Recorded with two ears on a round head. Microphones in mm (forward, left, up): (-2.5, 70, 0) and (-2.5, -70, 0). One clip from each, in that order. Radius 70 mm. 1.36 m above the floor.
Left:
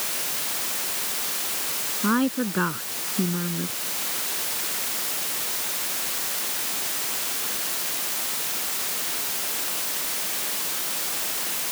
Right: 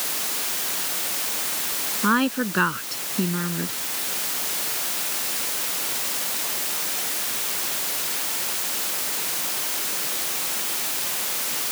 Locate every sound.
2.0 s a woman speaking: 55° right (ahead or behind)